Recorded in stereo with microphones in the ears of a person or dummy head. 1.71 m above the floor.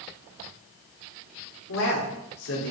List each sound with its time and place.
1.7 s a man speaking: 85° left, 5 m; by 2.7 s 80° left, 4.5 m